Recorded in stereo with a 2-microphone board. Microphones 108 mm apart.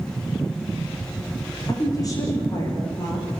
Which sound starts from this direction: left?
A woman speaking, at 1.7 s.